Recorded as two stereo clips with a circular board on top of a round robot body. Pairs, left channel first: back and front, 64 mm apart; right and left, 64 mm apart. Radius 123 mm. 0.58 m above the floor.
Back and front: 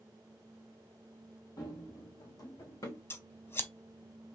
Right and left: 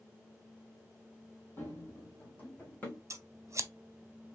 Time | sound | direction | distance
1.6 | running footsteps | 150° right | 1.0 m
3.1 | scissors | 130° left | 0.9 m